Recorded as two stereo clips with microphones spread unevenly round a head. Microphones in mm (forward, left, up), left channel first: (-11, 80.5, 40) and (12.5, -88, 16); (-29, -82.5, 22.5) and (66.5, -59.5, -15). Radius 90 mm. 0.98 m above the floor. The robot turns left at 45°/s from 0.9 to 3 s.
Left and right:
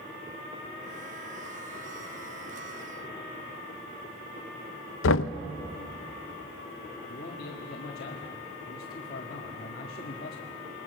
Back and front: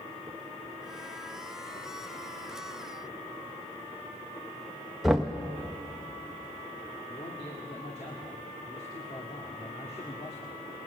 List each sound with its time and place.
5.0 s knocking: 95° left, 0.6 m
7.1 s a man speaking: 135° left, 1.8 m